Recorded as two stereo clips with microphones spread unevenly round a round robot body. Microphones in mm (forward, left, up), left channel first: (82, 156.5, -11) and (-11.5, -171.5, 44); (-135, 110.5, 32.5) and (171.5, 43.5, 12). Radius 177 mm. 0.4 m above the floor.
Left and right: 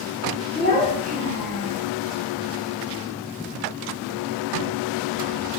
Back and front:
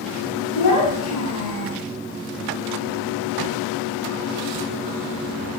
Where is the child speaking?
140° left, 2 m.